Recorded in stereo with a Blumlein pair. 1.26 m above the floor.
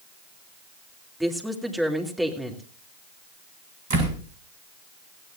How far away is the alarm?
No alarm in this recording.